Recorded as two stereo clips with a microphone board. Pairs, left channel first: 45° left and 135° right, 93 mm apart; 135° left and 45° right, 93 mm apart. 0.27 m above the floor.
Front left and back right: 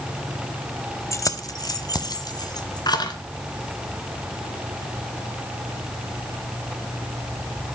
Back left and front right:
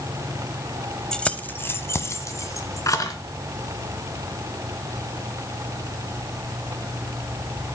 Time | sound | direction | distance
1.1 | keys jangling | 60° left | 0.7 m